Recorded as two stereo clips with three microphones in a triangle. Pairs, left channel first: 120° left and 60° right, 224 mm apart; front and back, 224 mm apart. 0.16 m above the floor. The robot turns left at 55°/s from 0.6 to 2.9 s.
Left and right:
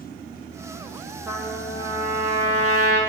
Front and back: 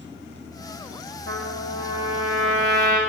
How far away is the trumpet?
About 4 m.